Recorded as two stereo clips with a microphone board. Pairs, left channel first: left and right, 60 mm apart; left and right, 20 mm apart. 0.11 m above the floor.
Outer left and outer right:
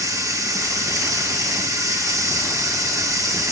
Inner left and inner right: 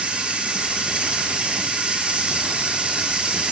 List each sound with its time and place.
0.0 s running water: 75° right (ahead or behind), 3 m